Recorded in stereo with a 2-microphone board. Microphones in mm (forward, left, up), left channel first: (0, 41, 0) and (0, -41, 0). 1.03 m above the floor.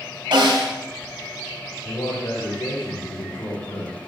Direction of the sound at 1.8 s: 75° left (ahead or behind).